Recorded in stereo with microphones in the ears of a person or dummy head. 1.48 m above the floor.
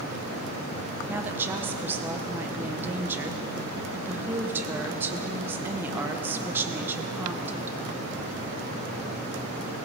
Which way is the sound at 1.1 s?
10° right (ahead or behind).